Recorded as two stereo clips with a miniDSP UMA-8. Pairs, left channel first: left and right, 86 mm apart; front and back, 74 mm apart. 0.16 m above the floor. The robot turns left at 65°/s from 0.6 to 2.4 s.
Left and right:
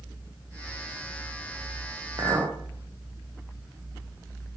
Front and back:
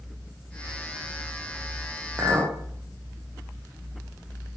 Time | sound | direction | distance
2.2 | a clink | 125° right | 5 m